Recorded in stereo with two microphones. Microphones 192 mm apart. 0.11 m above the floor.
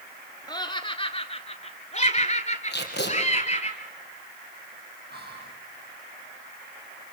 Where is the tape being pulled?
60° left (ahead or behind), 4 m.